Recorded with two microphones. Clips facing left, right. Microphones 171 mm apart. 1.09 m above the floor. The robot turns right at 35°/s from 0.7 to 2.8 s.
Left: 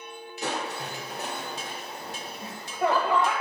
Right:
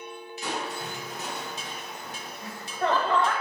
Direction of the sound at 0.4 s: 100° left.